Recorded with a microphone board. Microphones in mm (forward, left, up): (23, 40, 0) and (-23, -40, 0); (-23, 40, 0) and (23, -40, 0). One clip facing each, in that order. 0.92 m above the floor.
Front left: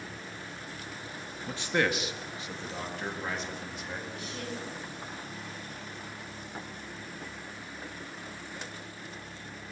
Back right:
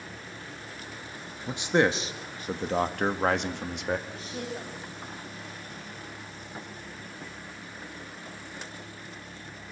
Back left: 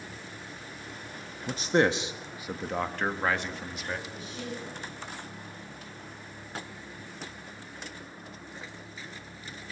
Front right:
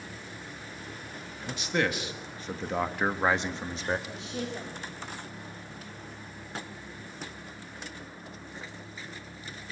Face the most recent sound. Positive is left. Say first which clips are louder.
# back right 2 dB, front right 3 dB
turn(degrees=-55)